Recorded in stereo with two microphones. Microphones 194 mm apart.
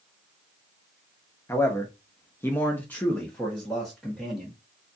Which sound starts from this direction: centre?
A man speaking, at 1.5 s.